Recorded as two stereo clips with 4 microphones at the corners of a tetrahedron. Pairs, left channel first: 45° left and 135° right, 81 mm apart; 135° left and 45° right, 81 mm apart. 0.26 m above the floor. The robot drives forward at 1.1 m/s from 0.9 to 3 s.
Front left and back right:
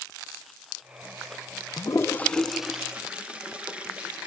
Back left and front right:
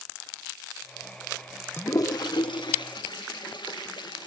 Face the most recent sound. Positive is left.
turn(degrees=150)